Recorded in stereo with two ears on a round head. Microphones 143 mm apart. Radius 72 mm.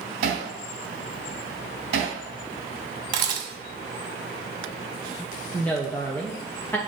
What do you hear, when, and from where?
0.2 s hammering: 70° right (ahead or behind), 3 m
3.1 s a camera shutter: 55° right (ahead or behind), 1.6 m
5.5 s a woman speaking: 10° left (ahead or behind), 0.7 m